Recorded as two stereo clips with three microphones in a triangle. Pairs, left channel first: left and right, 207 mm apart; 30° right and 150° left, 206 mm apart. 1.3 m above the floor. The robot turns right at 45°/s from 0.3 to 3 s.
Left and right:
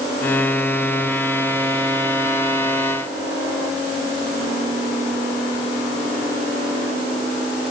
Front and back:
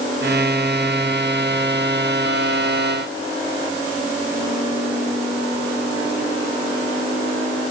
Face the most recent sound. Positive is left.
No sound to turn to.